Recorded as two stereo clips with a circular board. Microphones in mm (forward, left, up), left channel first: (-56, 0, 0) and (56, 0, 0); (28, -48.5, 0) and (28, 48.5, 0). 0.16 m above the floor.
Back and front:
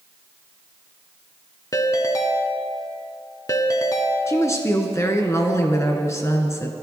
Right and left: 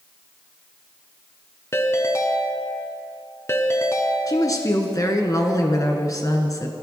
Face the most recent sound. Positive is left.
turn(degrees=-125)